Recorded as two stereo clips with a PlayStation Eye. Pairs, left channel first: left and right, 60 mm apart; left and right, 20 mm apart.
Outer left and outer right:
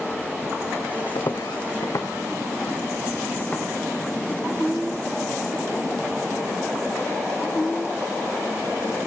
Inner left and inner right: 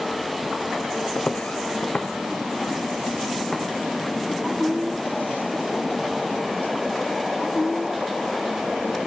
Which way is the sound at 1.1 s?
70° left (ahead or behind).